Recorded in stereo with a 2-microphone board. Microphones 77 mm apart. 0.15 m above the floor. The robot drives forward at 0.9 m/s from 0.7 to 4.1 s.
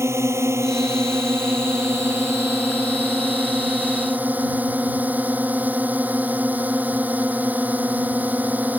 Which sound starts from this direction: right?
A drone, at 0.0 s.